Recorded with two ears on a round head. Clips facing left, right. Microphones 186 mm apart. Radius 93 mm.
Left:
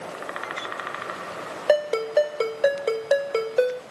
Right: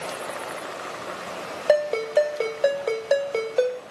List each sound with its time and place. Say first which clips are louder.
1.7 s a ringtone: even; 5° left (ahead or behind), 1.4 m